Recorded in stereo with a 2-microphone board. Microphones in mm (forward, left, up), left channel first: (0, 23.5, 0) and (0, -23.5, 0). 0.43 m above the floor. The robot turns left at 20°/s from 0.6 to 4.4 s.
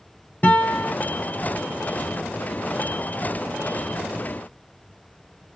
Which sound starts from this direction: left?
A guitar, at 0.4 s.